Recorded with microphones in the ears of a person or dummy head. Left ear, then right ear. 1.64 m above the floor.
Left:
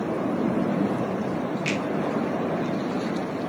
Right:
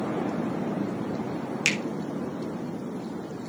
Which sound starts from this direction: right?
A finger snap, at 1.6 s.